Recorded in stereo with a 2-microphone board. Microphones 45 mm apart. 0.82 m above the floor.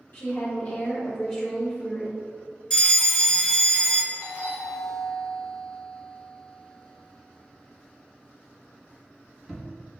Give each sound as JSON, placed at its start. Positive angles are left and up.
{"t": 0.1, "sound": "a woman speaking", "side_deg": 45, "distance_m": 1.8}
{"t": 2.7, "sound": "a fire alarm", "side_deg": 20, "distance_m": 1.4}
{"t": 4.1, "sound": "a doorbell", "side_deg": -10, "distance_m": 1.4}